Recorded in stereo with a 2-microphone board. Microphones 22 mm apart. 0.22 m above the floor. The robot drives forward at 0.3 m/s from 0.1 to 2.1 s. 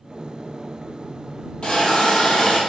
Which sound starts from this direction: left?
A hiss, at 1.6 s.